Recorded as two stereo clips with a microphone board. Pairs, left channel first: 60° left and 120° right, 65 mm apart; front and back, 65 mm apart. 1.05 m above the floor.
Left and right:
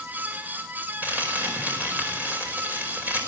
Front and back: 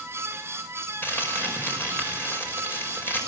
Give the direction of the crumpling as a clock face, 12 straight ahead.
2 o'clock.